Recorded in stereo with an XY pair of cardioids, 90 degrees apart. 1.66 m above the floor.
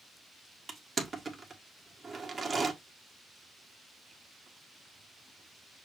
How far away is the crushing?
About 1.4 m.